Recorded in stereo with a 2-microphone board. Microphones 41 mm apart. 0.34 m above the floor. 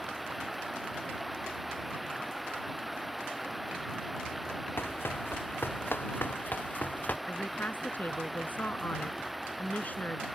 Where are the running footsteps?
65° left (ahead or behind); by 7.2 s 40° left (ahead or behind).